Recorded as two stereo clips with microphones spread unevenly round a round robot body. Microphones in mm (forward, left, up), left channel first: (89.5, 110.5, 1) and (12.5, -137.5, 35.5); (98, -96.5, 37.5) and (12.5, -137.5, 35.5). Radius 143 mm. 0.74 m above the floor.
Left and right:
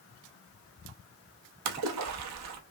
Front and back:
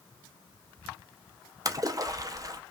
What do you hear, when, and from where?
1.6 s a splash: 110° right, 0.9 m